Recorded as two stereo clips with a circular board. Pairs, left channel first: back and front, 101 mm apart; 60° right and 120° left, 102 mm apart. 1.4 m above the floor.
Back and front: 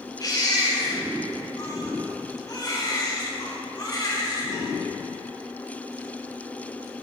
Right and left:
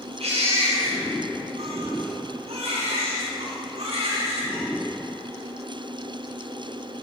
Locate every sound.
0.2 s a baby crying: 125° left, 3.5 m